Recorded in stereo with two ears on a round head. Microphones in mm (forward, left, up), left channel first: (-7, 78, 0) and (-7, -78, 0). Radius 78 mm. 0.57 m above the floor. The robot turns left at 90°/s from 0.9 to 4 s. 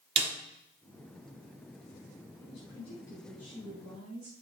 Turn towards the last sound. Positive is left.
turn(degrees=-65)